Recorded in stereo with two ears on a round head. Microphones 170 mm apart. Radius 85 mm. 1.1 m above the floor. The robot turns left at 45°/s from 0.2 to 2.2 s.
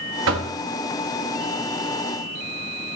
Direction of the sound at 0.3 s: 65° right (ahead or behind).